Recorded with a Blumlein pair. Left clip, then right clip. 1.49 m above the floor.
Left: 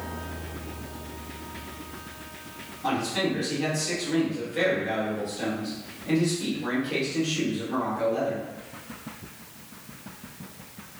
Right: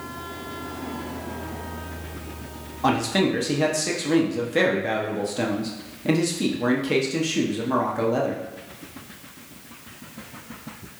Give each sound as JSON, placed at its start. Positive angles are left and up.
{"t": 2.8, "sound": "a man speaking", "azimuth_deg": -50, "distance_m": 0.9}